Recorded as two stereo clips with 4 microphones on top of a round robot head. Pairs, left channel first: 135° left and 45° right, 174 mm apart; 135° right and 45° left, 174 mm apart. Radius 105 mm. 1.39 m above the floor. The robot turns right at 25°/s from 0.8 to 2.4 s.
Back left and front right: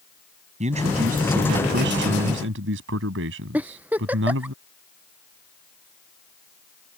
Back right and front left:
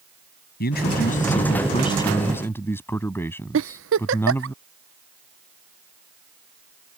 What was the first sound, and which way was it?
A man speaking, 100° right.